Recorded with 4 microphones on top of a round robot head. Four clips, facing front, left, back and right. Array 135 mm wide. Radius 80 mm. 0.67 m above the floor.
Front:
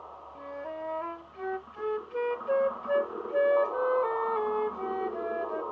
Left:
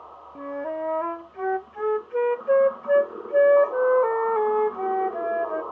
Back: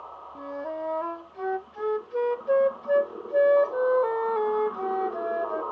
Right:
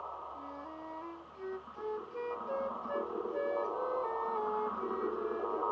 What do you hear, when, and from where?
0.3 s a flute: 110° left